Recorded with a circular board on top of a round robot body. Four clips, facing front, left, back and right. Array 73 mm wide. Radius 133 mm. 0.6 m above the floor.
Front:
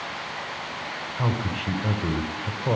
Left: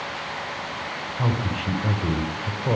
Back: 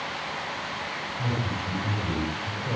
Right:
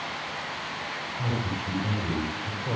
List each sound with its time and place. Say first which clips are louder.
1.2 s a man speaking: left 5 dB, front 3 dB; 35° left, 4.5 m